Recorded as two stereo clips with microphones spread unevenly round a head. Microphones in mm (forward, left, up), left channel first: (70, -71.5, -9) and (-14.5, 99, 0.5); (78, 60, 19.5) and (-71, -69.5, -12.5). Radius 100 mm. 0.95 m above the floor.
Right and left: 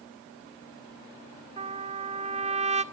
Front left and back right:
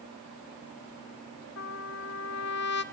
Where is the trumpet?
60° left, 1.7 m.